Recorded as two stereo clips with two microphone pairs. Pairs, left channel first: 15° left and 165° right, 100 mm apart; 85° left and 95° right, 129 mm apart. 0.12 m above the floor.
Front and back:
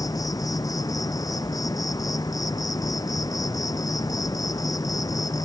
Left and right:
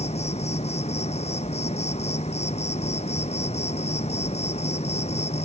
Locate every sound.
0.0 s an insect: 60° left